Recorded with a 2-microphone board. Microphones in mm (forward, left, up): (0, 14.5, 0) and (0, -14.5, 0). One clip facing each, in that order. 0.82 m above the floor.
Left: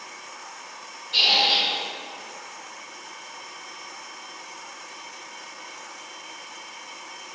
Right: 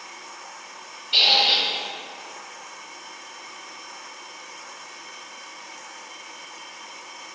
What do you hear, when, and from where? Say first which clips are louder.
1.1 s a squeak: right 2 dB; 60° right (ahead or behind), 0.6 m